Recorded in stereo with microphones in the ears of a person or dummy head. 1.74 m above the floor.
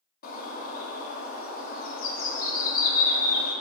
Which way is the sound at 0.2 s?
50° left (ahead or behind).